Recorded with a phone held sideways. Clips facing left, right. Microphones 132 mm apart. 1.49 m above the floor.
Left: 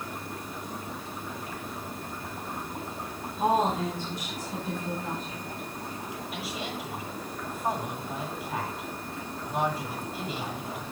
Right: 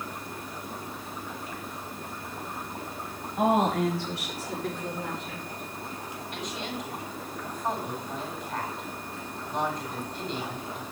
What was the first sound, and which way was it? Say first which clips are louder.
A woman speaking: right 2 dB; 80° right.